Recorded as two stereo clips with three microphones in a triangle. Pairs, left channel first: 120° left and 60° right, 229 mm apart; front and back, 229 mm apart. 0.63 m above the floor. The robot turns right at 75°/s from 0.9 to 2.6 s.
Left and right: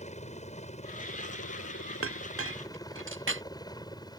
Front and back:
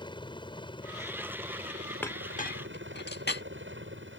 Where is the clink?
80° right; by 3.4 s 35° right.